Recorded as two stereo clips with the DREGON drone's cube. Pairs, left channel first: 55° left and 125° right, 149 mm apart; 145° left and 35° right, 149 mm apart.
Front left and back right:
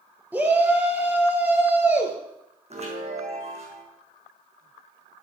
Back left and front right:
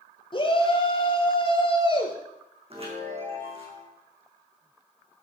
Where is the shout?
165° left, 2 m.